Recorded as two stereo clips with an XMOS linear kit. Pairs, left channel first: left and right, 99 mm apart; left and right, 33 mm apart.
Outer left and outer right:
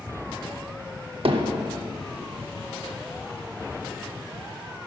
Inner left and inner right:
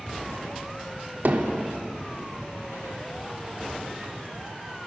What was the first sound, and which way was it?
Hammering, 70° right (ahead or behind).